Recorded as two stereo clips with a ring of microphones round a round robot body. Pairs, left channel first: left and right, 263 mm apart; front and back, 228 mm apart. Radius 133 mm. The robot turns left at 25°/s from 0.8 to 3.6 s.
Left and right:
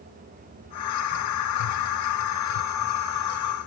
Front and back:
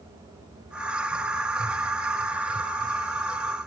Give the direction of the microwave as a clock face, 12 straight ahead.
No microwave in this recording.